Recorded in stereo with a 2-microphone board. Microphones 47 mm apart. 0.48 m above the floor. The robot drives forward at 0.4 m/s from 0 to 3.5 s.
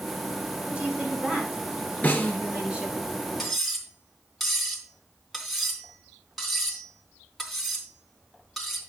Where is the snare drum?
35° left (ahead or behind), 2 m.